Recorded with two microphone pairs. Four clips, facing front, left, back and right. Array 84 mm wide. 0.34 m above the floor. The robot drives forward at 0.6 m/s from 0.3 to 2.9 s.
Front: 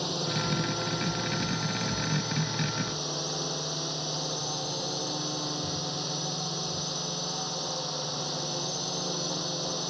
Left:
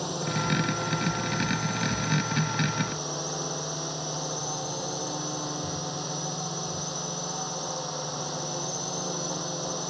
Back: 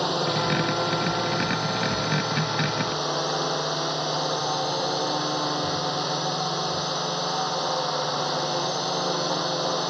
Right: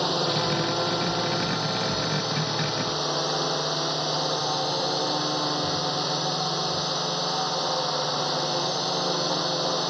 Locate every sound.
0.0 s a drone: 150° right; by 9.9 s 155° right